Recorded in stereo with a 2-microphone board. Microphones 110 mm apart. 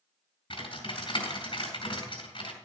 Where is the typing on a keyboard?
50° left (ahead or behind), 4 m.